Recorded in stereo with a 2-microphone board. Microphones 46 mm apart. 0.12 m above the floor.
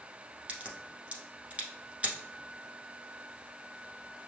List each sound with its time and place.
0.5 s a crack: 30° right (ahead or behind), 1.1 m